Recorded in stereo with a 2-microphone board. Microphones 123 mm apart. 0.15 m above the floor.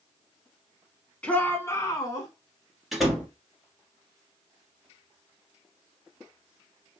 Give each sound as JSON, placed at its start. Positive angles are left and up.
{"t": 1.2, "sound": "a shout", "side_deg": 10, "distance_m": 1.2}
{"t": 2.9, "sound": "a door slam", "side_deg": 0, "distance_m": 1.6}